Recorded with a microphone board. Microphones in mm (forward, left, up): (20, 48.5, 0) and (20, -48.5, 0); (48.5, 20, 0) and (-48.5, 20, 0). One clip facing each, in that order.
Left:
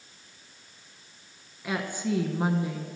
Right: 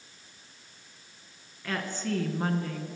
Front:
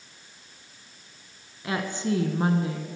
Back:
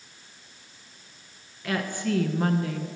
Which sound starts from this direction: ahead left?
A woman speaking, at 1.6 s.